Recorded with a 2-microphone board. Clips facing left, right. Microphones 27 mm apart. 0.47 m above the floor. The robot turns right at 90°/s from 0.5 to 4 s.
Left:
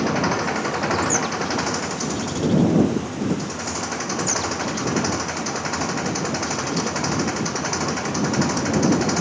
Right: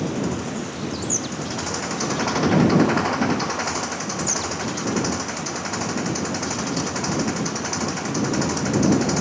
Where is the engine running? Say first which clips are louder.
Left 4 dB; 55° left; by 9.2 s 10° left.